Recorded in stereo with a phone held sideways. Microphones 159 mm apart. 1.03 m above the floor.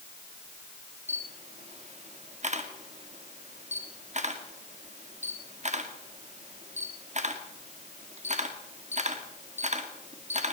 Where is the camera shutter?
50° right (ahead or behind), 2.0 m.